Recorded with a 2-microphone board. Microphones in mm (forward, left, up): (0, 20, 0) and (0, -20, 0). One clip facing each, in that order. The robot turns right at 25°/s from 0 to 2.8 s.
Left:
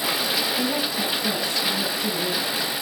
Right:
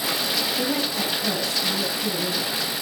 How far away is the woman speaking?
About 6.5 m.